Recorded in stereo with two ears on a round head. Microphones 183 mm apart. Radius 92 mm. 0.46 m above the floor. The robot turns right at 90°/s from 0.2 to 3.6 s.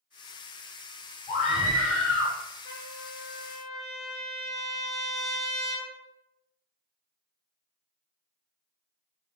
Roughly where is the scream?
Behind left.